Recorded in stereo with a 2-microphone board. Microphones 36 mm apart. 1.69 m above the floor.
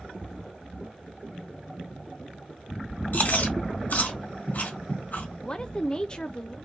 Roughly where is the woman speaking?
Left.